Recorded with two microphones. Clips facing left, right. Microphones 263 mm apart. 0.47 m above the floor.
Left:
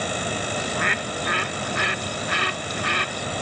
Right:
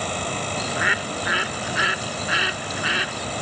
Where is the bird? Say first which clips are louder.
Even; 5° right (ahead or behind).